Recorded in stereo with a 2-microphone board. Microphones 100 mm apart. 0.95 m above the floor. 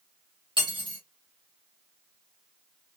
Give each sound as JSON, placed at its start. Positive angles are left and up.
{"t": 0.6, "sound": "cutlery clinking", "side_deg": -50, "distance_m": 1.2}